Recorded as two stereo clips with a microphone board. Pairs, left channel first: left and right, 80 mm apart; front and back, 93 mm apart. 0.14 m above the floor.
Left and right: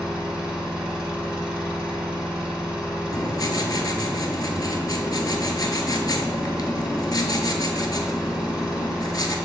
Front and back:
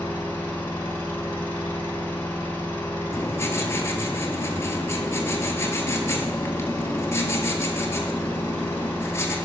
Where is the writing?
55° left, 0.6 m.